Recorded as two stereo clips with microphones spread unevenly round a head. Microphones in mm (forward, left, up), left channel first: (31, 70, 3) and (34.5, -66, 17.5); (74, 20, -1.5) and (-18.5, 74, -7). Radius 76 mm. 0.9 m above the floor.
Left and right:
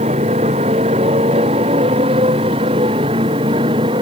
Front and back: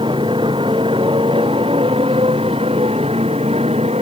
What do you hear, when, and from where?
0.0 s a motorcycle: 145° right; by 4.0 s 150° right